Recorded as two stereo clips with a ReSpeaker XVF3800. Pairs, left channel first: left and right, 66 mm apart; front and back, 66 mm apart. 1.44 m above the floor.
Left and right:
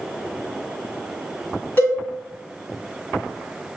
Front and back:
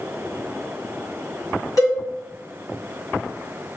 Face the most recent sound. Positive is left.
turn(degrees=30)